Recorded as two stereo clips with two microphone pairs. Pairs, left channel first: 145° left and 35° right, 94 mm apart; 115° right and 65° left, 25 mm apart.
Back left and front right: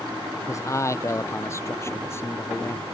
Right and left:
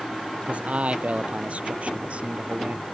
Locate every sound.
0.5 s a man speaking: 90° left; by 2.8 s 80° left